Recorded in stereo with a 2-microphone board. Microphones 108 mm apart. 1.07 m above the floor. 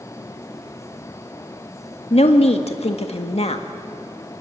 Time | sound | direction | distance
2.1 | a woman speaking | 70° left (ahead or behind) | 1.8 m